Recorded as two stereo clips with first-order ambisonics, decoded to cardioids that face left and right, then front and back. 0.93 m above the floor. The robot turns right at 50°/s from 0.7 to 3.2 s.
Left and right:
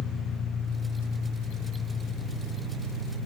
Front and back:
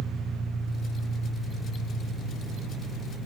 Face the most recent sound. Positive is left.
turn(degrees=-135)